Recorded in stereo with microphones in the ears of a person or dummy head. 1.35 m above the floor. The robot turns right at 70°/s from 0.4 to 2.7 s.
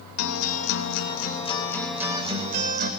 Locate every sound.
0.2 s a guitar: 80° left, 3.5 m; by 2.9 s 115° right, 3.5 m